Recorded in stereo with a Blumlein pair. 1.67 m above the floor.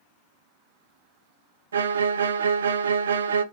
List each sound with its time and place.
1.7 s a violin: 65° right, 0.7 m